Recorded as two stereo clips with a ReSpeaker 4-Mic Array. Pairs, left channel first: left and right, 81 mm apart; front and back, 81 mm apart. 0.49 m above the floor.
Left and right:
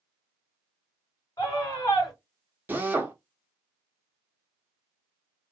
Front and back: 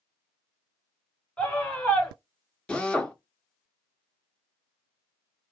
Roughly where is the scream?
Left.